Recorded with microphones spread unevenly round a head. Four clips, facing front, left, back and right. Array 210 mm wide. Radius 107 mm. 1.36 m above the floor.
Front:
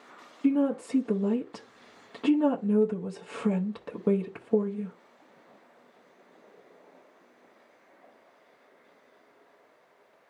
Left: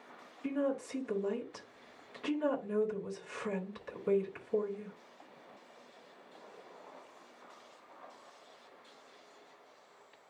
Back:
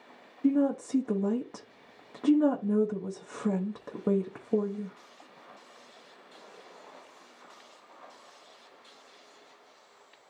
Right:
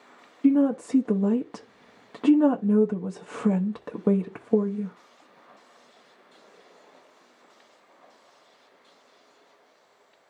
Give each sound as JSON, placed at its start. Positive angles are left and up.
{"t": 0.4, "sound": "a woman speaking", "azimuth_deg": -85, "distance_m": 0.8}